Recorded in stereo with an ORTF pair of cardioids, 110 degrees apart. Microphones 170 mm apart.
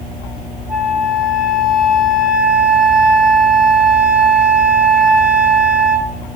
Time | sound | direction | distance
0.7 | a flute | 55° right | 5 m